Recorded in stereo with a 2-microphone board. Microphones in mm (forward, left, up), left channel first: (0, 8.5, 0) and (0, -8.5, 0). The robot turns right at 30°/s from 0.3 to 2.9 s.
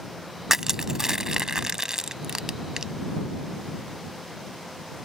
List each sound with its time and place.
0.5 s crushing: 30° right (ahead or behind); by 2.9 s 35° right (ahead or behind)